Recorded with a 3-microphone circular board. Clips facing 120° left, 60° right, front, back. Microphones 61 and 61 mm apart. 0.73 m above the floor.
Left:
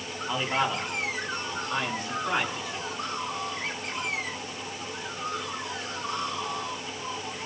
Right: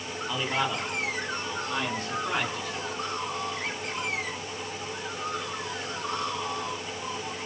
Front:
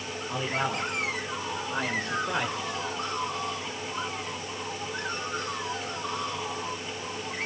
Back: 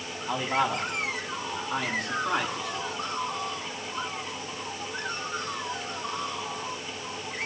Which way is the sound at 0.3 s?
160° right.